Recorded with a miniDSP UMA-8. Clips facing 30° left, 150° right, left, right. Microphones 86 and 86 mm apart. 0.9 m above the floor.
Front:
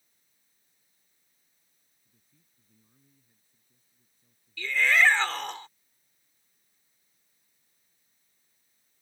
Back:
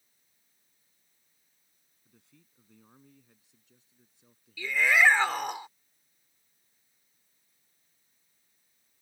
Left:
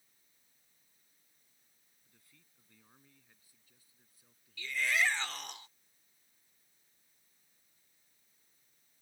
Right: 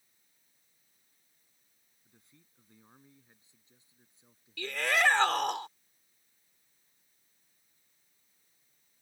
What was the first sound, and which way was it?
A man speaking, 160° right.